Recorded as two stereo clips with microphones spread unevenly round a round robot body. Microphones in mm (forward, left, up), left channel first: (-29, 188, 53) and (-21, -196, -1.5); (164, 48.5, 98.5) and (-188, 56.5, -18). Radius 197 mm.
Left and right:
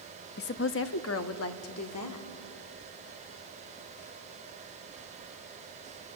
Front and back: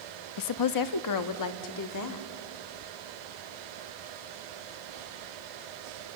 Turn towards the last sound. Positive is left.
turn(degrees=40)